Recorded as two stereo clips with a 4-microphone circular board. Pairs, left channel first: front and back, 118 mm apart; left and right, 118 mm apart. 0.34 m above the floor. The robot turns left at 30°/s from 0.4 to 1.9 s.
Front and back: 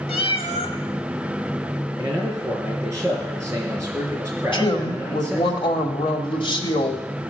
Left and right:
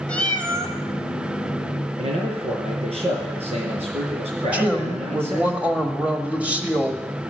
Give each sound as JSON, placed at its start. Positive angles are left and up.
{"t": 0.1, "sound": "a cat meowing", "azimuth_deg": 15, "distance_m": 0.9}
{"t": 2.0, "sound": "a man speaking", "azimuth_deg": -110, "distance_m": 4.5}
{"t": 4.5, "sound": "a woman speaking", "azimuth_deg": -15, "distance_m": 1.3}